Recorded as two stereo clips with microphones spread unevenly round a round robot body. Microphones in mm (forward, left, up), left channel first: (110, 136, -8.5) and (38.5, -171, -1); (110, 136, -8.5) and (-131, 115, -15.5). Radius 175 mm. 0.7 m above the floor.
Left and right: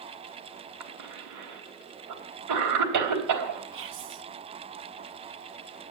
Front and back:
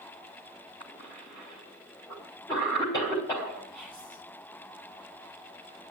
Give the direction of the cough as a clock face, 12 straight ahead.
2 o'clock.